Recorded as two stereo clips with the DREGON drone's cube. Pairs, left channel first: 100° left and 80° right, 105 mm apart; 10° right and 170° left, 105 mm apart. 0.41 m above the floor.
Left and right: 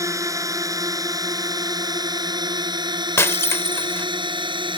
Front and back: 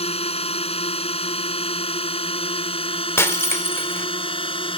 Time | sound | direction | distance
0.0 | a drone | 20° right | ?
3.2 | breaking glass | 45° left | ?